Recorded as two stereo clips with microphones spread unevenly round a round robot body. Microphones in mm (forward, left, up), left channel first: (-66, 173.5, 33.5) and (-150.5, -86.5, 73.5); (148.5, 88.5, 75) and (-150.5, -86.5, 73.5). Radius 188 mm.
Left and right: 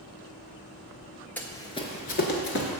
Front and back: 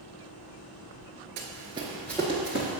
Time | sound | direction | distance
1.4 | running footsteps | 165° left | 0.8 m